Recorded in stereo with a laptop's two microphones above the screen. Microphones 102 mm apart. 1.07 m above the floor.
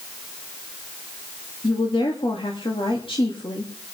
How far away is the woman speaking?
About 2.5 m.